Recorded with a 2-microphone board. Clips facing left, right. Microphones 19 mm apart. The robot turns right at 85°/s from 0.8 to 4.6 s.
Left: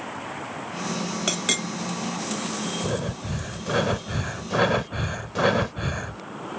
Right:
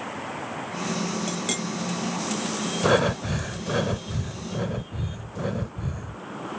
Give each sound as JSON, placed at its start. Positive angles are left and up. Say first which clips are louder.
{"t": 1.3, "sound": "a clink", "louder": "left 4 dB", "side_deg": 45}
{"t": 2.8, "sound": "breathing", "louder": "right 7 dB", "azimuth_deg": -65}